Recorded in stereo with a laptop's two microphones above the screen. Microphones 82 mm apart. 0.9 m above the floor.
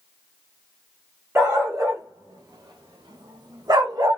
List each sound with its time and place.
1.4 s a dog barking: 30° right (ahead or behind), 1.4 m; by 4.2 s 45° right (ahead or behind), 1.3 m